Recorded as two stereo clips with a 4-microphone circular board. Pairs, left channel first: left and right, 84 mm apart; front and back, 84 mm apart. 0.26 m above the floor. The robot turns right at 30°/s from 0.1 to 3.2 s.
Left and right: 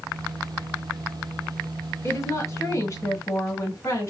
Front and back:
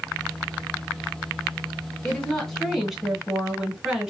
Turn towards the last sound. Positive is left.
turn(degrees=100)